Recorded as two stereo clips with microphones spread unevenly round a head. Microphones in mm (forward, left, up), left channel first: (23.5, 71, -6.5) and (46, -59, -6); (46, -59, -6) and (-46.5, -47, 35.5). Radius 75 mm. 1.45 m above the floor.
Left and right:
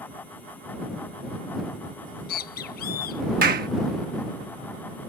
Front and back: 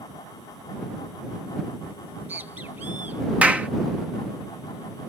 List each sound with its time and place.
2.1 s a bird: 100° left
3.4 s a clap: 115° right